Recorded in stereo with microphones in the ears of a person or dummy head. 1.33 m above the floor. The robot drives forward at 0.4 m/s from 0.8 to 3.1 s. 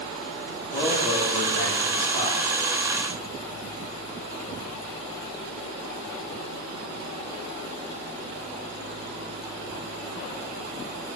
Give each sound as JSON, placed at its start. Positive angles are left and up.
{"t": 0.7, "sound": "a man speaking", "side_deg": 40, "distance_m": 4.0}